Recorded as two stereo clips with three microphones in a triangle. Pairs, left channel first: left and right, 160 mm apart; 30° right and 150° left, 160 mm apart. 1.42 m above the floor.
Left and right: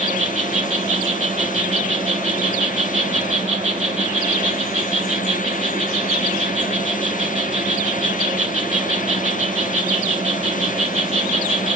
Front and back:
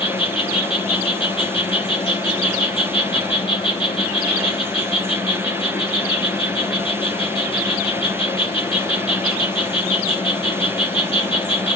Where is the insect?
70° right, 1.2 m.